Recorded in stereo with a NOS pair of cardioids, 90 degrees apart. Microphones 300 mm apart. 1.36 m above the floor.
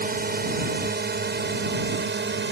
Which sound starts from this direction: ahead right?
A drone, at 0.0 s.